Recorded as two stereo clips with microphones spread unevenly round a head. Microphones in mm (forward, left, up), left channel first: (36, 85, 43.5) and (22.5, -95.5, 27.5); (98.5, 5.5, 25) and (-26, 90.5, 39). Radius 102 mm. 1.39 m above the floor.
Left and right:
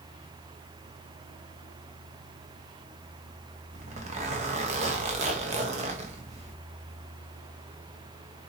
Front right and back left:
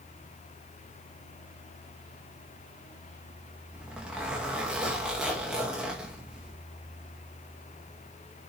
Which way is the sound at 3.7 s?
135° right.